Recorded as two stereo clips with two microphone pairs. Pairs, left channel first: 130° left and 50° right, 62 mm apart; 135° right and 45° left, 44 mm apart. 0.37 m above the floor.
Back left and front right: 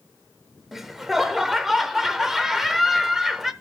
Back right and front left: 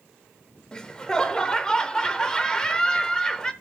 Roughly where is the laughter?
Behind right.